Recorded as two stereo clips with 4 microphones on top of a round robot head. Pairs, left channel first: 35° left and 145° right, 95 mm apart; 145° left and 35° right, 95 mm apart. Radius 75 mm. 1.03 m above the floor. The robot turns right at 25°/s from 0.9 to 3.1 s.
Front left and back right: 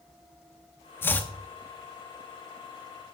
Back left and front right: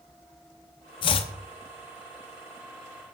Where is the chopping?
105° left, 0.7 m; by 1.3 s 110° left, 0.7 m.